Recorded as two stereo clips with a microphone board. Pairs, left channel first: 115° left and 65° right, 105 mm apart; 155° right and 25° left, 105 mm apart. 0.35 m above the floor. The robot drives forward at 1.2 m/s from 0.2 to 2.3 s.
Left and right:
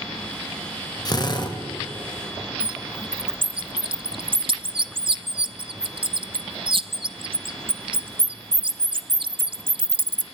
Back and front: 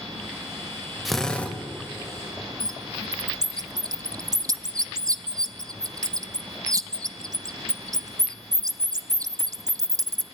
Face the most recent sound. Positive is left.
turn(degrees=-30)